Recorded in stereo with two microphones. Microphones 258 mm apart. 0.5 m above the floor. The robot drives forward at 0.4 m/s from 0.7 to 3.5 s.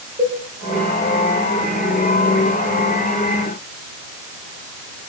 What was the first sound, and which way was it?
A cowbell, 35° right (ahead or behind).